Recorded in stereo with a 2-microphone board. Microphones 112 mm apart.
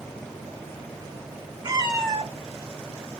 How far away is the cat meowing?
About 1.6 m.